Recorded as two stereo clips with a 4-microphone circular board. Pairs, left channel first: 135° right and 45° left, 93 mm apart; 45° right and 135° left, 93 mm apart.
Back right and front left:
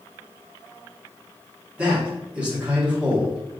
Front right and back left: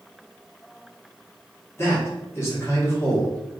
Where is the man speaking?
20° right, 1.0 m.